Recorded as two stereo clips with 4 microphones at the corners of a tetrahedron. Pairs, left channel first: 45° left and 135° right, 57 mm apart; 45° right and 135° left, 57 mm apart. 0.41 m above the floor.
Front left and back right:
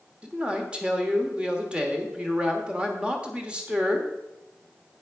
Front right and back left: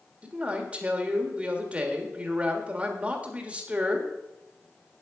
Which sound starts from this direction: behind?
A man speaking, at 0.2 s.